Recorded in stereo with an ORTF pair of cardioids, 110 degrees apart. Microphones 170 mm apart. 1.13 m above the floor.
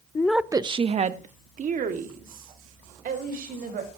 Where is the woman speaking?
20° left, 0.6 m; by 4.0 s 60° right, 5.5 m.